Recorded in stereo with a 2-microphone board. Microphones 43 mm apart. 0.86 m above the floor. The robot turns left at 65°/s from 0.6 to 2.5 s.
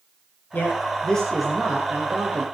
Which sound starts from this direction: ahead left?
A man speaking, at 0.5 s.